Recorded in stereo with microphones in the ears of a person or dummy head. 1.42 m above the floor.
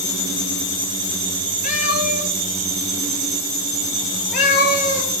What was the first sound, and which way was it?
A cat meowing, 50° left (ahead or behind).